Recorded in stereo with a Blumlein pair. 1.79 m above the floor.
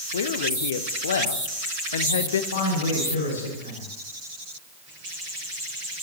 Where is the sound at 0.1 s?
65° left, 0.9 m.